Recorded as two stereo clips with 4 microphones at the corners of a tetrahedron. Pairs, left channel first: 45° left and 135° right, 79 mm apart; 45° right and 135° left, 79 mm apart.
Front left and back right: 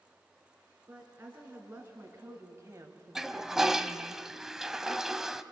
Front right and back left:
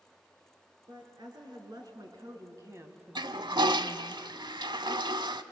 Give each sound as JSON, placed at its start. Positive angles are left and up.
{"t": 0.9, "sound": "a woman speaking", "azimuth_deg": 160, "distance_m": 4.0}
{"t": 3.1, "sound": "a toilet flushing", "azimuth_deg": 140, "distance_m": 0.7}